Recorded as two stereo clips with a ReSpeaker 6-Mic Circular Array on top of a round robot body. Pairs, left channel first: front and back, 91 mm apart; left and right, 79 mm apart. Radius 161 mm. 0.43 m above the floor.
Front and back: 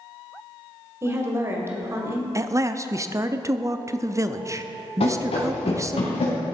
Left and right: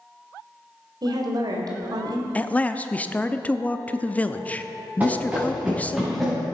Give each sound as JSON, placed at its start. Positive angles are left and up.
{"t": 1.0, "sound": "a woman speaking", "azimuth_deg": -120, "distance_m": 2.5}
{"t": 2.4, "sound": "a man speaking", "azimuth_deg": 150, "distance_m": 0.9}
{"t": 5.0, "sound": "running footsteps", "azimuth_deg": -20, "distance_m": 4.0}